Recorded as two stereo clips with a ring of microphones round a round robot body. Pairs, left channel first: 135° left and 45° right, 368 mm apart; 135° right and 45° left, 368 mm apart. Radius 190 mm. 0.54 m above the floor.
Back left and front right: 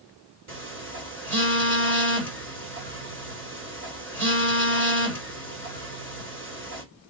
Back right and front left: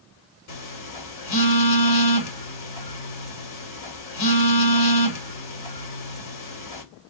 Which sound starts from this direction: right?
A phone buzzing, at 0.5 s.